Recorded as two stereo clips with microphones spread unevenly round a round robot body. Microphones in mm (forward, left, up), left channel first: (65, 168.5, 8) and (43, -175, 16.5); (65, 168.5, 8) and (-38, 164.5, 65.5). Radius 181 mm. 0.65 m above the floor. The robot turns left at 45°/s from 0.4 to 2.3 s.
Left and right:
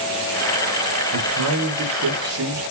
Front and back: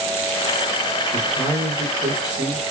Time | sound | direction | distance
1.1 | a man speaking | 70° right | 1.0 m